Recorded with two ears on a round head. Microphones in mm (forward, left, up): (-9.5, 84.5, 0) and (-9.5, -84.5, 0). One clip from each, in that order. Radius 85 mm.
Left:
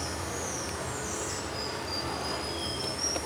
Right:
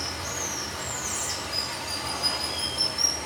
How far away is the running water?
About 3.5 m.